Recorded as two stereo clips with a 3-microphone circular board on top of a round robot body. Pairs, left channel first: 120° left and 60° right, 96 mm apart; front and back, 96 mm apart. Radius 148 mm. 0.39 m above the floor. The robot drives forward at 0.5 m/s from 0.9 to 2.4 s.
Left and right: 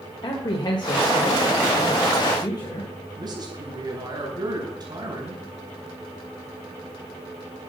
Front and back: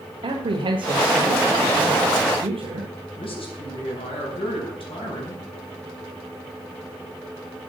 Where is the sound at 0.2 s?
155° left, 1.7 m; by 2.9 s 165° left, 2.5 m.